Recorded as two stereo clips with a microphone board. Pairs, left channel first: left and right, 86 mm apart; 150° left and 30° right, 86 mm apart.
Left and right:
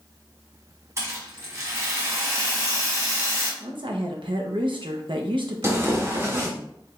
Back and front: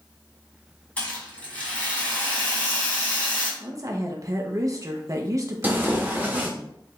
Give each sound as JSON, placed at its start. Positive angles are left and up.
{"t": 1.0, "sound": "a rattle", "azimuth_deg": -140, "distance_m": 2.0}
{"t": 3.6, "sound": "a woman speaking", "azimuth_deg": -75, "distance_m": 0.7}
{"t": 5.6, "sound": "tearing paper", "azimuth_deg": -75, "distance_m": 1.1}